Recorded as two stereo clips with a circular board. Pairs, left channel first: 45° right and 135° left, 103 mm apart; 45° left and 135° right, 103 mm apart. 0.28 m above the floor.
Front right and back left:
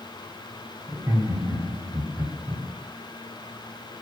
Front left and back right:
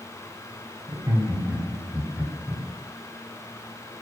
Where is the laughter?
Straight behind, 2.5 m; by 2.6 s 120° left, 2.5 m.